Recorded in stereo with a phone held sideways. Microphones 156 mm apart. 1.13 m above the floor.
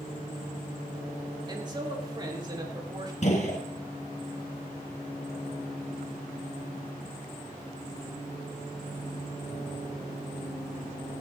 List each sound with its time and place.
1.5 s a man speaking: 30° right (ahead or behind), 2 m
3.2 s a gunshot: 50° left (ahead or behind), 2.5 m